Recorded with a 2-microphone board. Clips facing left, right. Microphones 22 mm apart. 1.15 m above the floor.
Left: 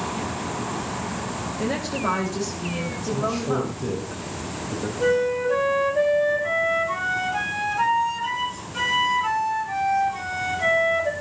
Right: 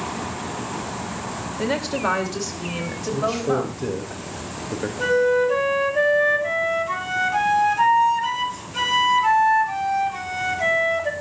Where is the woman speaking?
50° right (ahead or behind), 2 m; by 4.1 s 55° right (ahead or behind), 3.5 m.